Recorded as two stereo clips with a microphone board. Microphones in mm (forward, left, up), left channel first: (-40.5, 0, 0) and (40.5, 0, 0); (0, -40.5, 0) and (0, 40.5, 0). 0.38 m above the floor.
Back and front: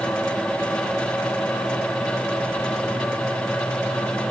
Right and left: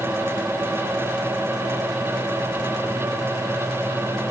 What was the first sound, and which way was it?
Only background noise.